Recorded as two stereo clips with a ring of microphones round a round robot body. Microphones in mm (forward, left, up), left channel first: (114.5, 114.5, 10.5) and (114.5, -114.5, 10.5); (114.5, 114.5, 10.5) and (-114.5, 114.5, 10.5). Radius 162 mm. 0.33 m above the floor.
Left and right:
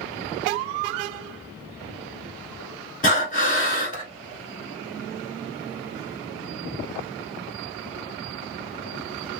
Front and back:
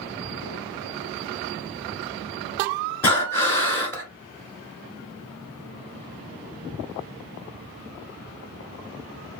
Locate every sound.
3.0 s breathing: 70° left, 1.4 m